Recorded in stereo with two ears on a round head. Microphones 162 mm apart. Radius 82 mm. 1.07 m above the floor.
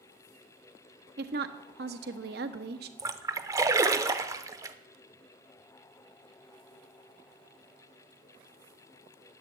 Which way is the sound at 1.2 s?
55° right (ahead or behind).